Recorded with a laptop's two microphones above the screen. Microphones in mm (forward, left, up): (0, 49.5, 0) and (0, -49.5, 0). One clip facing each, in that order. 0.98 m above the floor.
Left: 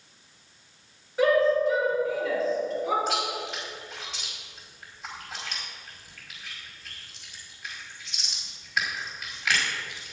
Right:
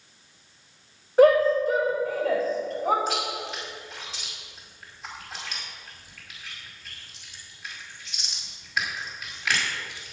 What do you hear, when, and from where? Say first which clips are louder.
1.2 s a shout: right 4 dB; 45° right (ahead or behind), 4 m
3.1 s chewing: even; centre (ahead or behind), 5 m